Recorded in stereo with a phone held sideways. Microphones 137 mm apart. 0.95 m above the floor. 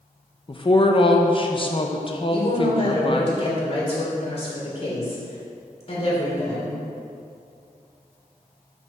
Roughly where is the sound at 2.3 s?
Left.